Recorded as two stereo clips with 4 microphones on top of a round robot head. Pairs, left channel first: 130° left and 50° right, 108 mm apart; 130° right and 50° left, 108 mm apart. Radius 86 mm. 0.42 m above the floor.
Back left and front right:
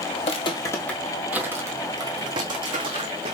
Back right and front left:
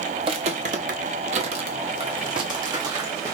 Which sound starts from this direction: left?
Footsteps, at 0.2 s.